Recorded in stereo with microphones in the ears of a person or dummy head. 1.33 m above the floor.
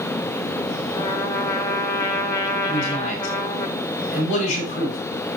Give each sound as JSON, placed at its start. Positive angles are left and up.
{"t": 0.9, "sound": "a trumpet", "side_deg": 15, "distance_m": 1.0}
{"t": 2.7, "sound": "a man speaking", "side_deg": 40, "distance_m": 3.5}